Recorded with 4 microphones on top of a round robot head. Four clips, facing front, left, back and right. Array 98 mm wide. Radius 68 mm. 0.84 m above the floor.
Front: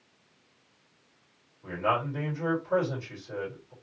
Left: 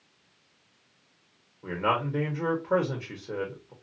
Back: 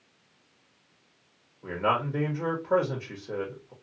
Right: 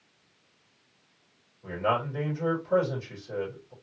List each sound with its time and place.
1.6 s a man speaking: 130° left, 1.3 m